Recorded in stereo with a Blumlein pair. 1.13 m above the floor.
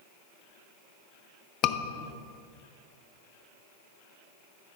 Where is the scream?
35° left, 0.8 m.